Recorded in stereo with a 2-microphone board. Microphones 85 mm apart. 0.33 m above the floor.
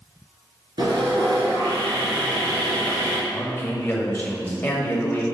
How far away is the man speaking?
About 1.6 m.